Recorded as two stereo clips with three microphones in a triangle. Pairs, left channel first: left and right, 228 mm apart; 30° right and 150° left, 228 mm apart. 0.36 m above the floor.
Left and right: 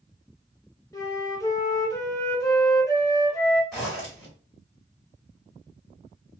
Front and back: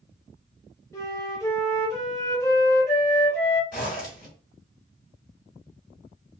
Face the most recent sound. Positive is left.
turn(degrees=5)